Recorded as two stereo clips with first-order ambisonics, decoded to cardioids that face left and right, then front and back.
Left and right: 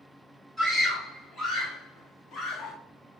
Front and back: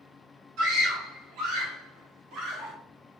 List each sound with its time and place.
0.6 s a scream: 165° right, 1.9 m; by 2.8 s 155° left, 2.5 m